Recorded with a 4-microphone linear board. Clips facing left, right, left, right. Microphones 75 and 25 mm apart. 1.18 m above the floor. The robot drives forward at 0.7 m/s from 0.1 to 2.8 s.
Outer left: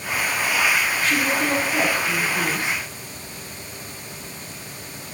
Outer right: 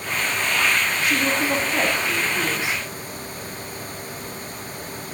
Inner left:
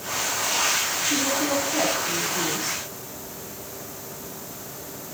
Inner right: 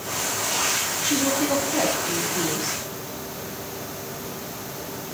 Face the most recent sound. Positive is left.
turn(degrees=-10)  # may be behind; listen again after turning